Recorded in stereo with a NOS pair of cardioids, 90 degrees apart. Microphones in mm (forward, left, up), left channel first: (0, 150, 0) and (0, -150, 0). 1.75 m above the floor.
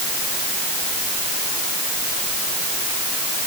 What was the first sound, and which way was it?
Only background noise.